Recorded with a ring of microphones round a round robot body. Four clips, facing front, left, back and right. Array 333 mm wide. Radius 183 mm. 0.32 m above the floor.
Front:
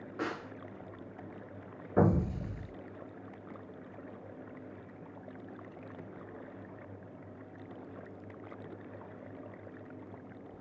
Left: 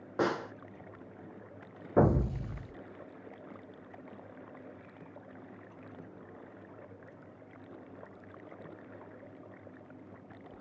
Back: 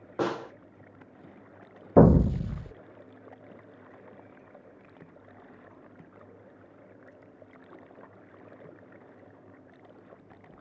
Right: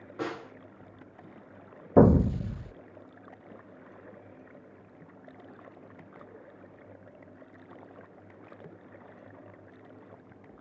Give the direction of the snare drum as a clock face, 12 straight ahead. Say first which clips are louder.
Left 5 dB, back 8 dB; 7 o'clock.